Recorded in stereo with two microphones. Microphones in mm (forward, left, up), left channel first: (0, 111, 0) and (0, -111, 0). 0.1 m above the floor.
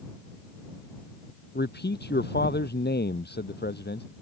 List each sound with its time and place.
1.6 s a man speaking: 50° left (ahead or behind)